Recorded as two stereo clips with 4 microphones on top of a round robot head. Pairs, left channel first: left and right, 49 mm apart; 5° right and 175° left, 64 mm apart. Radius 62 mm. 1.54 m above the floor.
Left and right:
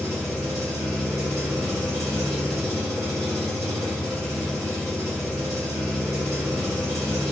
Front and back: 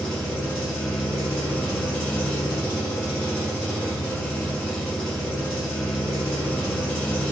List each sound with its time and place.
0.0 s an engine running: 80° right, 1.4 m